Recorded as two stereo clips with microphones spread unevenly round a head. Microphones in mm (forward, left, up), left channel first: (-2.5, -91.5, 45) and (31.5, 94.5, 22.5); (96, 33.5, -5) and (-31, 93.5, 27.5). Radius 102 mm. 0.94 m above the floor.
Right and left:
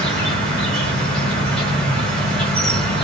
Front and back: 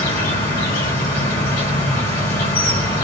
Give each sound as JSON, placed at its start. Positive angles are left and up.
{"t": 0.0, "sound": "an insect", "azimuth_deg": -5, "distance_m": 1.3}